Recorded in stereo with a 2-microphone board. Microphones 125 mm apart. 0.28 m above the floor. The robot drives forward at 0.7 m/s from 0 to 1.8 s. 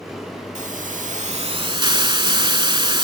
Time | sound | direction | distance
0.6 | a hiss | 65° right (ahead or behind) | 0.6 m